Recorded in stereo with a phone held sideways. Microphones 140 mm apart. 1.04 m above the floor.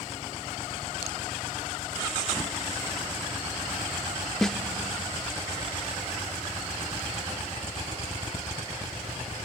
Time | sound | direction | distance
4.4 | a snare drum | centre (ahead or behind) | 0.6 m